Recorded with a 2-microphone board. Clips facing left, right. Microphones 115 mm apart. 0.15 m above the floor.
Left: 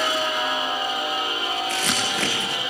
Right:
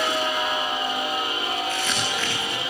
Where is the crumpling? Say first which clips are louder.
Left 1 dB; 85° left, 8 m.